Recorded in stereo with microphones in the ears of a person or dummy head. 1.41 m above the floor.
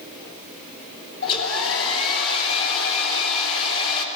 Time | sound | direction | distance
1.2 | a hair dryer | 80° left | 3 m